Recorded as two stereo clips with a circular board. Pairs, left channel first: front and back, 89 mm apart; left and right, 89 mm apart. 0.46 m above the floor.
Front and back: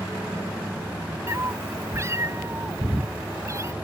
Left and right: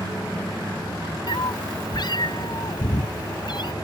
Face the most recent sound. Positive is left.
turn(degrees=125)